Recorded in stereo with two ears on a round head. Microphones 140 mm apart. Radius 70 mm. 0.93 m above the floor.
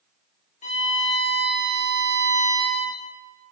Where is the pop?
I don't hear a pop.